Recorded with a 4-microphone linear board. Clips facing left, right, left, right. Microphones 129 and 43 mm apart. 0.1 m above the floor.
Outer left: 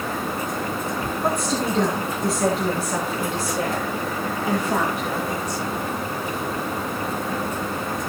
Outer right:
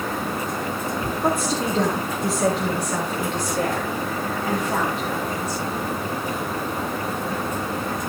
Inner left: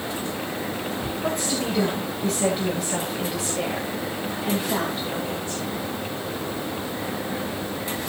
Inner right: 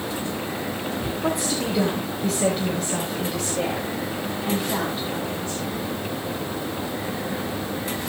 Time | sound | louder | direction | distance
1.2 | a woman speaking | outer right 1 dB, inner right 1 dB | 5° right (ahead or behind) | 9.5 m